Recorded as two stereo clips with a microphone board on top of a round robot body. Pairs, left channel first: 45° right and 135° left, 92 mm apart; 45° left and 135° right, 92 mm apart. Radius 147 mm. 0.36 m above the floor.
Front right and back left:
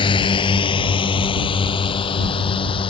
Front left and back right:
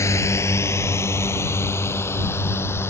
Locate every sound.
0.0 s a drone: 15° right; by 2.9 s 20° right